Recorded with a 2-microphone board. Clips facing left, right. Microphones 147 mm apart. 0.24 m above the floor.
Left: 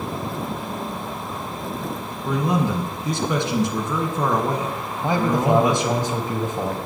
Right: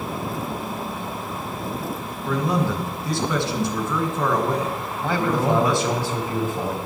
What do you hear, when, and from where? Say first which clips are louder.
2.2 s a man speaking: left 1 dB; 20° left (ahead or behind), 2.5 m
5.0 s a man speaking: left 2 dB; 20° left (ahead or behind), 1.2 m